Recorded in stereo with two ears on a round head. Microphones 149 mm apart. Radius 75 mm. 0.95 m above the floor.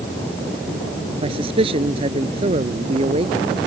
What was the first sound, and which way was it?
A man speaking, 35° right (ahead or behind).